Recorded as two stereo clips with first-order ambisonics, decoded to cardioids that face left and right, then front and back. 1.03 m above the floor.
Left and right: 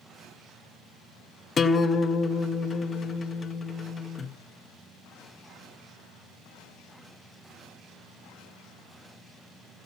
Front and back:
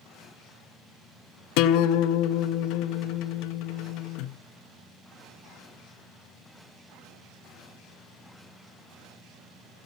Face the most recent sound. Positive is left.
turn(degrees=20)